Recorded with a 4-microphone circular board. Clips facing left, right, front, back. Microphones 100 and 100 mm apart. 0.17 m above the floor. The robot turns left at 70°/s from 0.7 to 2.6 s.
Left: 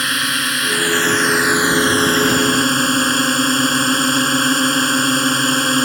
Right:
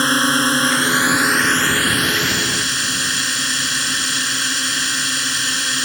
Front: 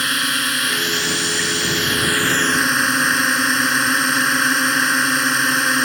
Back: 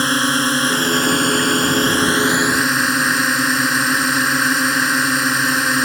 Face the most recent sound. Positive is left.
turn(degrees=90)